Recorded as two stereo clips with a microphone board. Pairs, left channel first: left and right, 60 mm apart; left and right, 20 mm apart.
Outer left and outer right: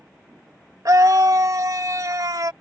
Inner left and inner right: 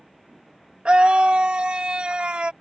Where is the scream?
65° right (ahead or behind).